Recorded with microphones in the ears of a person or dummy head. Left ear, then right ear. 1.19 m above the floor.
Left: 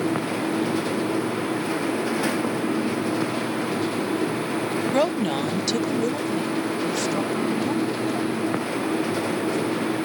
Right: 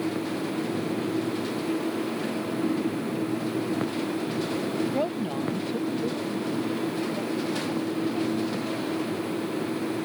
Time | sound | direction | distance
4.9 | a woman speaking | 40° left (ahead or behind) | ?